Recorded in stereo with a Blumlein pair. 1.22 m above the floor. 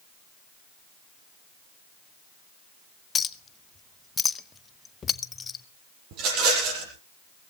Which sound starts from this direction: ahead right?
A rattle, at 6.1 s.